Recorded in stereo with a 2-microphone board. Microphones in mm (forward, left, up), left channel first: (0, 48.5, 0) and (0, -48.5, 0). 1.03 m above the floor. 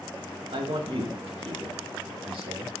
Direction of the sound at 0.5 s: 70° right (ahead or behind).